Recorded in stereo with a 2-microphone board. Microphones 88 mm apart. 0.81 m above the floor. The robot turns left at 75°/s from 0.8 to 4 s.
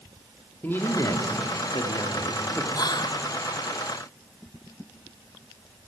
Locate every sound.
0.6 s a man speaking: 155° left, 1.7 m; by 2.6 s 15° left, 1.7 m
2.7 s whispering: 125° left, 0.7 m; by 3.2 s 85° left, 0.7 m